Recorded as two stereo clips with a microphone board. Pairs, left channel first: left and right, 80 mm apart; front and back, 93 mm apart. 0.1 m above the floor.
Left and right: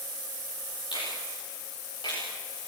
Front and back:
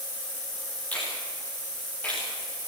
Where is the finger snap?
75° left, 10 m.